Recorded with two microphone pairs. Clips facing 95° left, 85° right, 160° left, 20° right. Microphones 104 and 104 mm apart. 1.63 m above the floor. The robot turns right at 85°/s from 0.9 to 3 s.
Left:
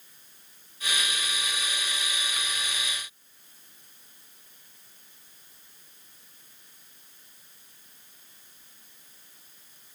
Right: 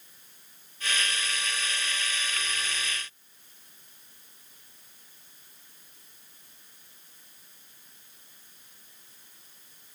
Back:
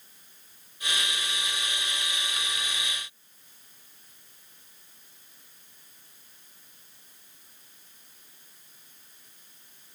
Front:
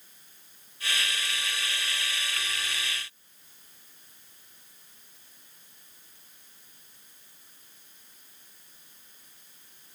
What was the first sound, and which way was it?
Only background noise.